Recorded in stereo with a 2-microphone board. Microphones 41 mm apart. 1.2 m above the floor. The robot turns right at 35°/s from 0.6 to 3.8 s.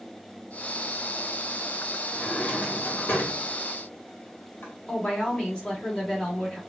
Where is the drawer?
35° left (ahead or behind), 1.3 m; by 4.7 s 65° left (ahead or behind), 1.3 m.